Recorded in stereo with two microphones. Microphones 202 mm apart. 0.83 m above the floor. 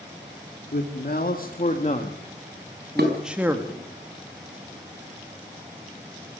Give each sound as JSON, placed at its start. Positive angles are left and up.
{"t": 0.7, "sound": "a man speaking", "side_deg": 55, "distance_m": 2.5}
{"t": 3.0, "sound": "dishes clattering", "side_deg": -55, "distance_m": 4.0}